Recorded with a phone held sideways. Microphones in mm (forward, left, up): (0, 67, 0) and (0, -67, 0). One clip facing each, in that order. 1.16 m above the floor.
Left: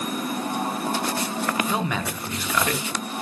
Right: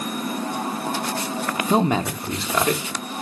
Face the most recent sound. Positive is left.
turn(degrees=-25)  # may be behind; listen again after turning